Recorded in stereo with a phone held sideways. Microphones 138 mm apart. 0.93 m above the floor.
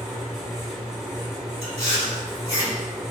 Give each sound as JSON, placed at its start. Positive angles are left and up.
{"t": 0.0, "sound": "a fan", "side_deg": 0, "distance_m": 1.4}
{"t": 1.6, "sound": "chewing", "side_deg": 45, "distance_m": 2.0}